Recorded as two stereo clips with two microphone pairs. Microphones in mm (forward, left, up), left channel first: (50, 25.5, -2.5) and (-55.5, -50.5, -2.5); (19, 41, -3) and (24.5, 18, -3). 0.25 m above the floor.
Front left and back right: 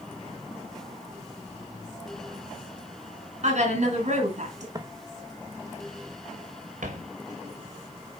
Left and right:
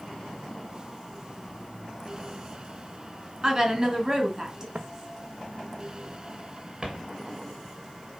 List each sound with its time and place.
3.4 s a woman speaking: 145° right, 3 m
4.8 s footsteps: 85° right, 1.0 m; by 7.1 s 135° right, 2.5 m